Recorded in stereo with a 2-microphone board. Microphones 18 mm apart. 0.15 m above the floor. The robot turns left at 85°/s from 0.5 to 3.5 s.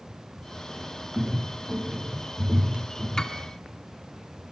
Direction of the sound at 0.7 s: 20° left (ahead or behind).